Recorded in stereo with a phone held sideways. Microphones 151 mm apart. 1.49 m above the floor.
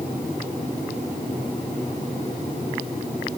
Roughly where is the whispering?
No whispering in this recording.